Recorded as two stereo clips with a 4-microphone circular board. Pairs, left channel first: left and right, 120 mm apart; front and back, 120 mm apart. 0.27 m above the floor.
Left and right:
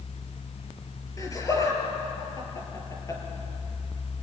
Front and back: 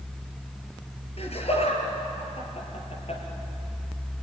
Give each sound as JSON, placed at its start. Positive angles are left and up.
{"t": 1.2, "sound": "laughter", "azimuth_deg": 30, "distance_m": 5.5}